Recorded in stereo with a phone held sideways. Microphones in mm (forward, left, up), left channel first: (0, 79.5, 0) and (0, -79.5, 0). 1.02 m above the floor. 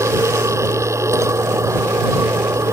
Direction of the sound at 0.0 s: 20° right (ahead or behind).